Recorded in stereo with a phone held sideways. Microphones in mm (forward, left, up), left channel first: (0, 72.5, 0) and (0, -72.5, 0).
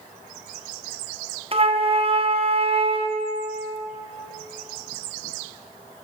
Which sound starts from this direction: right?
A flute, at 1.5 s.